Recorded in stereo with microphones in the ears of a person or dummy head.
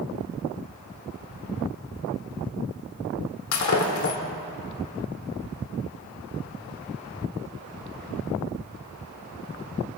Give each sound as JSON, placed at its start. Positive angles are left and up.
{"t": 3.5, "sound": "breaking glass", "side_deg": 75, "distance_m": 2.0}